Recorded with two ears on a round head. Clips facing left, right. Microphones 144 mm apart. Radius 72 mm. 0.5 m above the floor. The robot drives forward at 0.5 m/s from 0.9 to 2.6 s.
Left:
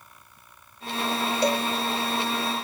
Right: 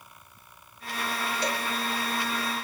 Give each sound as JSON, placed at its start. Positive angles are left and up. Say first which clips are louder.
{"t": 1.4, "sound": "a cowbell", "louder": "left 9 dB", "side_deg": 75, "distance_m": 1.9}